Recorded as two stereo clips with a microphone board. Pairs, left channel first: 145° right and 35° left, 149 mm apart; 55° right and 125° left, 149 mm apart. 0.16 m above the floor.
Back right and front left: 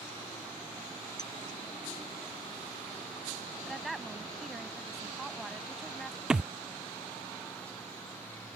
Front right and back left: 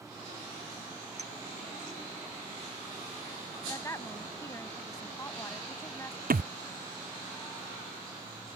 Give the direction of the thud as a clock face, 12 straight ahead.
8 o'clock.